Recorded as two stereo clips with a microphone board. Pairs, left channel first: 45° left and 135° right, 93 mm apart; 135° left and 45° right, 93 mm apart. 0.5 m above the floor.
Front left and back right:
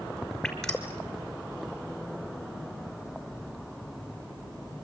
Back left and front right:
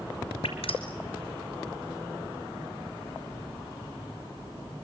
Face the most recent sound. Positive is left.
turn(degrees=130)